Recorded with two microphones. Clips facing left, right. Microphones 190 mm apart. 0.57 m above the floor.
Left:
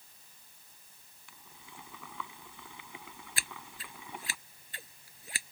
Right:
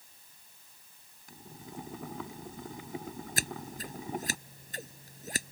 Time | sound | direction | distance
1.3 | boiling | 40° right (ahead or behind) | ?
3.4 | scissors | 45° right (ahead or behind) | ?